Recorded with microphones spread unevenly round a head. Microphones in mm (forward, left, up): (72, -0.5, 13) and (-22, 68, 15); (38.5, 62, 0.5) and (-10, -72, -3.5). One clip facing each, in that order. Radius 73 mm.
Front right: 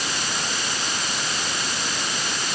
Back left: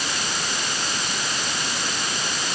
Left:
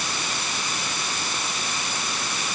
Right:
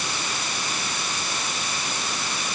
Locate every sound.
Only background noise.